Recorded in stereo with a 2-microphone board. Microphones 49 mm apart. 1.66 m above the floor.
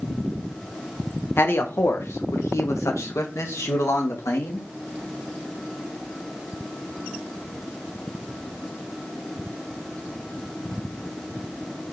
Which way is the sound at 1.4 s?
50° left (ahead or behind).